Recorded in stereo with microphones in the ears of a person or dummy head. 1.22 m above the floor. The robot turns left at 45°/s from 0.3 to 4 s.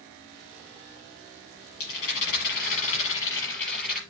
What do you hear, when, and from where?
1.8 s a rattle: 95° left, 4.5 m; by 4.0 s 5° right, 4.5 m